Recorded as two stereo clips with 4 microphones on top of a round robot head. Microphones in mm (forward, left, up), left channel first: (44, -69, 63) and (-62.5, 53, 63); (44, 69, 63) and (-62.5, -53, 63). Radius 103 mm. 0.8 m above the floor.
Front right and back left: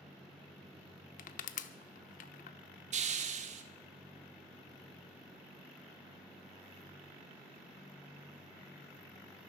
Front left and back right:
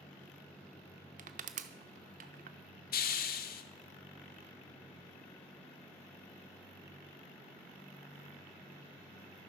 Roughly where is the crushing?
Right.